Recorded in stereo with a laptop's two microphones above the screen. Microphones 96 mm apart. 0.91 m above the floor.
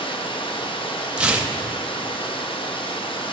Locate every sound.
0.0 s running water: 60° left (ahead or behind), 0.9 m
1.2 s tearing paper: 10° right (ahead or behind), 0.5 m